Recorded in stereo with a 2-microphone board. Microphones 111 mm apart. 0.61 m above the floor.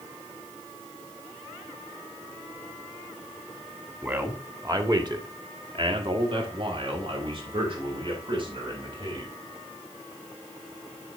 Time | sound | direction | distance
4.0 | a man speaking | 20° right (ahead or behind) | 1.4 m